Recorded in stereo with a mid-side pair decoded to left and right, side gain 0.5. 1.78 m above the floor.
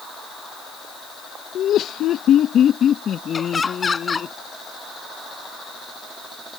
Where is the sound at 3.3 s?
30° left.